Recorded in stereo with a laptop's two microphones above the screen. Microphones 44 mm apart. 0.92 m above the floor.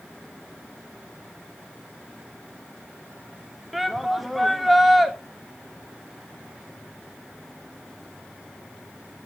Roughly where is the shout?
Centre.